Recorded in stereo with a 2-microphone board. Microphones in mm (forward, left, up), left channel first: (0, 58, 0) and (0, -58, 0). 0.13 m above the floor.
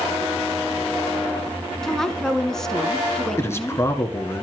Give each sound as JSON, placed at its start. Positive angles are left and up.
{"t": 1.8, "sound": "a woman speaking", "side_deg": 5, "distance_m": 1.3}
{"t": 3.4, "sound": "a man speaking", "side_deg": 25, "distance_m": 1.6}